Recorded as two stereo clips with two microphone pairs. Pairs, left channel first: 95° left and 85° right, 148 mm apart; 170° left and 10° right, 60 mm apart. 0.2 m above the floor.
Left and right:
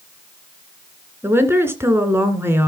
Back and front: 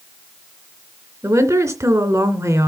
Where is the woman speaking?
15° right, 2.5 m.